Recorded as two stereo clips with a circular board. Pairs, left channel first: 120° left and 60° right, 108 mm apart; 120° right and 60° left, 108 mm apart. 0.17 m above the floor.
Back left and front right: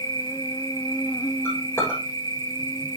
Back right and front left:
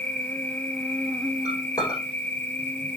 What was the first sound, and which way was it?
An insect, 165° left.